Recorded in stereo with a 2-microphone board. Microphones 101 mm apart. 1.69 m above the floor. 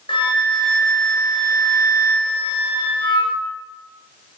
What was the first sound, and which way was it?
A flute, 55° left (ahead or behind).